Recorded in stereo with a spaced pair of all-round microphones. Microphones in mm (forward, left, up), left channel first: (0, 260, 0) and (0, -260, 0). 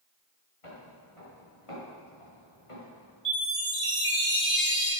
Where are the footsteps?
80° left, 6 m; by 3.1 s 75° left (ahead or behind), 6.5 m.